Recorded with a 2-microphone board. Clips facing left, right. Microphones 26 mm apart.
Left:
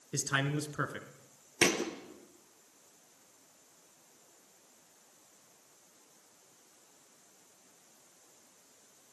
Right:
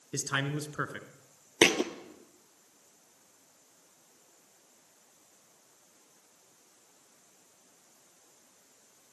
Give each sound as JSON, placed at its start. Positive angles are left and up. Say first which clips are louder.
{"t": 0.1, "sound": "a man speaking", "louder": "even", "side_deg": -5, "distance_m": 1.9}
{"t": 1.6, "sound": "a thud", "louder": "right 5 dB", "side_deg": -50, "distance_m": 1.6}